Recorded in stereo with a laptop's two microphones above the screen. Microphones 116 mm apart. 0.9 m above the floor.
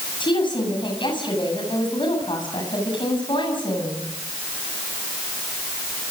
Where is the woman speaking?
45° left (ahead or behind), 7.5 m.